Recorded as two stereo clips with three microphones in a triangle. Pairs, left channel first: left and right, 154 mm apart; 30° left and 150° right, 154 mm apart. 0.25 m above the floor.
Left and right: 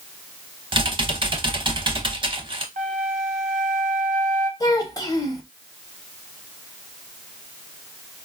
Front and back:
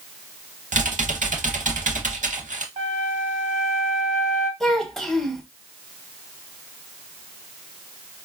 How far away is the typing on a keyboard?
About 0.6 m.